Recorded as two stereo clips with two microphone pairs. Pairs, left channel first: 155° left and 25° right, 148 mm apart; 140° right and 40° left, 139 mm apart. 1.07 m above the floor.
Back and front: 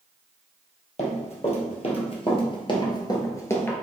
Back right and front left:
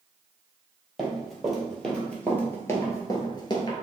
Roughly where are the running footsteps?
Behind left.